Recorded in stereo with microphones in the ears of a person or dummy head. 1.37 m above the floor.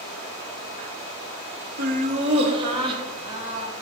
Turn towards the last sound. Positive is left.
turn(degrees=-25)  # may be behind; listen again after turning